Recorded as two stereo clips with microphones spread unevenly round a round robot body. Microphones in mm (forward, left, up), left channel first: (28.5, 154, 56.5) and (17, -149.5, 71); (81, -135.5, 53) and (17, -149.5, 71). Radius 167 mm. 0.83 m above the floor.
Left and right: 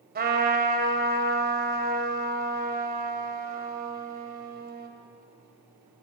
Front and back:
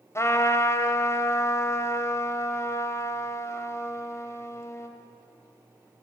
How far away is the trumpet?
About 3.5 m.